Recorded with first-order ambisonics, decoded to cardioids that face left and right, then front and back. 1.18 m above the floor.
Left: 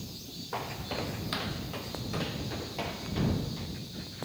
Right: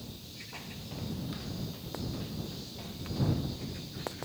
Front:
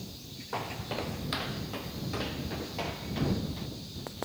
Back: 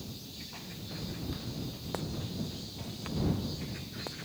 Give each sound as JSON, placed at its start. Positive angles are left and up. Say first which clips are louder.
{"t": 0.5, "sound": "footsteps", "louder": "left 12 dB, front 9 dB", "azimuth_deg": 40}